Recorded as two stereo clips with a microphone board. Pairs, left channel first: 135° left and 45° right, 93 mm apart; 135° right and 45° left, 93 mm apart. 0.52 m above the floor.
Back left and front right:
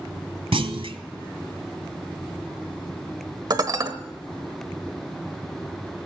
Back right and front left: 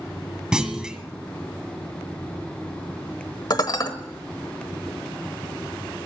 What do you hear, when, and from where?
0.5 s a clunk: 35° right, 1.1 m
3.5 s dishes clattering: 90° right, 1.2 m